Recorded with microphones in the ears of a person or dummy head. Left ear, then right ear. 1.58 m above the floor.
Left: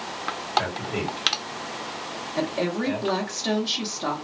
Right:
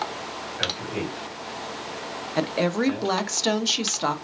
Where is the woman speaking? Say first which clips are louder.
Right 3 dB; 80° right, 0.7 m.